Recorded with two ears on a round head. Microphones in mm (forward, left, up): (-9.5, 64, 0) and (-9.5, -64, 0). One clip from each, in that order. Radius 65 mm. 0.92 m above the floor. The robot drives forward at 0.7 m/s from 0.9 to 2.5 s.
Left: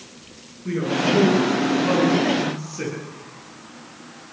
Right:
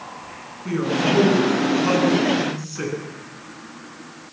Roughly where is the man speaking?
Right.